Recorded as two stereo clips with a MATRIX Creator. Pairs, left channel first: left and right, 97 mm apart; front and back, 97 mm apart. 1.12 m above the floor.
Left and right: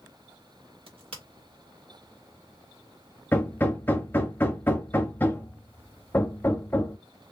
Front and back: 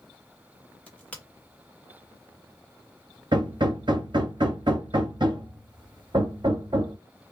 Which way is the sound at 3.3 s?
155° left.